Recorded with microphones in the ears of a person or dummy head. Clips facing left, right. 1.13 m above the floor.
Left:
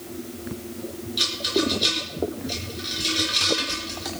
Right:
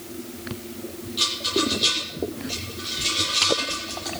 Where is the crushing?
No crushing in this recording.